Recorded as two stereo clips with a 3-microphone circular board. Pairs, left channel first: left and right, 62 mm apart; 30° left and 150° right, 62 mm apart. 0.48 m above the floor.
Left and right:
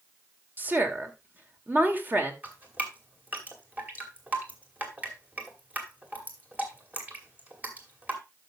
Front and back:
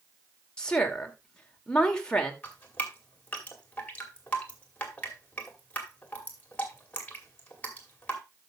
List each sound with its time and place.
0.6 s a woman speaking: 40° right, 1.8 m
2.4 s dripping: 30° right, 2 m